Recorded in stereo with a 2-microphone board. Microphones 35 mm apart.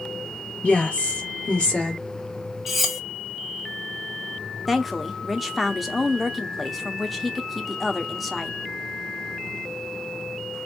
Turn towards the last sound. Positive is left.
turn(degrees=0)  # may be behind; listen again after turning